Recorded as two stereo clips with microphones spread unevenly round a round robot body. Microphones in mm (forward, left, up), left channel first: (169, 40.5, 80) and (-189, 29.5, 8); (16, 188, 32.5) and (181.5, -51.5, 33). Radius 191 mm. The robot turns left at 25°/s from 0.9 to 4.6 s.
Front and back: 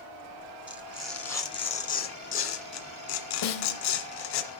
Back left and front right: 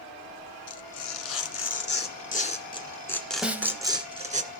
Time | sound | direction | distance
0.7 | tearing paper | 95° left | 2 m
3.4 | a snare drum | 30° left | 2.0 m